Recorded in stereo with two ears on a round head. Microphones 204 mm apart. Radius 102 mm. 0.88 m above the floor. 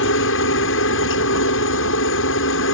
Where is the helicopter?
60° left (ahead or behind).